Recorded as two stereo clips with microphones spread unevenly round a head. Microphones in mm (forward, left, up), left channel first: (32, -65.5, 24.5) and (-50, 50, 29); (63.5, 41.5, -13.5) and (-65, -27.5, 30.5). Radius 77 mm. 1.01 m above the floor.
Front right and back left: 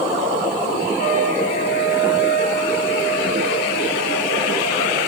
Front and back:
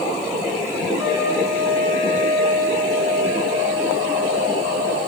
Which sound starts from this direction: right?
A trumpet, at 1.0 s.